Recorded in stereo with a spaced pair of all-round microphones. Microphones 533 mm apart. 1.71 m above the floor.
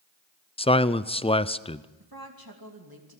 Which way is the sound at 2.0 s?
40° right (ahead or behind).